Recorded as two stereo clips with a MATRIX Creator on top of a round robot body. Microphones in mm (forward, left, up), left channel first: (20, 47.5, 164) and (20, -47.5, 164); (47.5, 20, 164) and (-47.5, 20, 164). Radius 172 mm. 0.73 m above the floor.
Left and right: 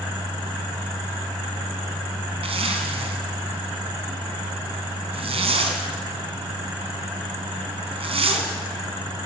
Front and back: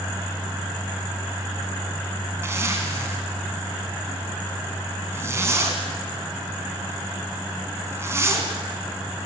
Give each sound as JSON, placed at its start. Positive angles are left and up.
{"t": 2.4, "sound": "a zipper", "azimuth_deg": -115, "distance_m": 2.5}